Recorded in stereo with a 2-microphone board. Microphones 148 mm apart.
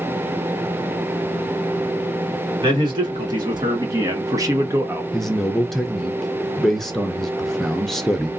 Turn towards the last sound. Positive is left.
turn(degrees=0)  # may be behind; listen again after turning